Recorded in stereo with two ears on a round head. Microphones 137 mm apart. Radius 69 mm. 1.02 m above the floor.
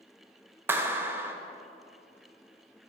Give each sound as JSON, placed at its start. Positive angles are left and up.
{"t": 0.7, "sound": "a clap", "side_deg": -15, "distance_m": 0.6}